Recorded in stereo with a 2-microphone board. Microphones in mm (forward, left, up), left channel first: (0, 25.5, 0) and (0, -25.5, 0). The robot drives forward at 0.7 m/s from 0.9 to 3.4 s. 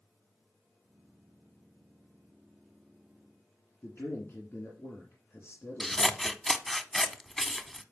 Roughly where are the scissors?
Centre.